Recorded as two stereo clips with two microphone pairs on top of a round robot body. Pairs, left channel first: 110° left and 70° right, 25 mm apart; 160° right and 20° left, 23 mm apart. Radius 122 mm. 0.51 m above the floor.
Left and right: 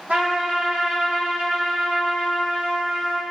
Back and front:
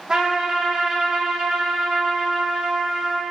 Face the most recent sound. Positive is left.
turn(degrees=-45)